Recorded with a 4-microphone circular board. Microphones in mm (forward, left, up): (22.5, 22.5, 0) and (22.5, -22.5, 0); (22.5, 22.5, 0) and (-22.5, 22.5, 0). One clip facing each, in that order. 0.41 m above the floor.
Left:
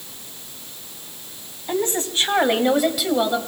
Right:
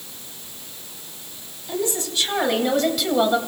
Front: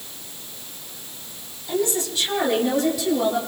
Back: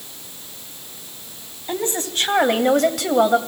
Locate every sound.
1.7 s a woman speaking: 125° left, 2.5 m; by 3.4 s 165° right, 1.8 m